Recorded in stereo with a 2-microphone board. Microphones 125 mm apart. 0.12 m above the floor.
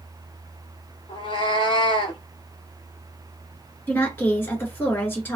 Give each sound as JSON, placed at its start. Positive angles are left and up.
{"t": 1.1, "sound": "a cat meowing", "side_deg": 45, "distance_m": 0.8}
{"t": 3.9, "sound": "a woman speaking", "side_deg": 20, "distance_m": 1.8}